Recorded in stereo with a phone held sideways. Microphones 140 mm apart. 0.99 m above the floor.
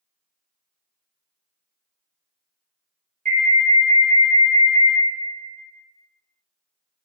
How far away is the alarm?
About 0.9 m.